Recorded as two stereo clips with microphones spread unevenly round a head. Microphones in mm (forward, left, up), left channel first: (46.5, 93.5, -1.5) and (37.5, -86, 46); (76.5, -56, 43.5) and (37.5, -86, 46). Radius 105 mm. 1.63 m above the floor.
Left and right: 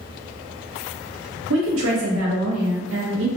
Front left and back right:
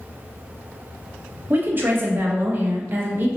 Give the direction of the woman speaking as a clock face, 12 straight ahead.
3 o'clock.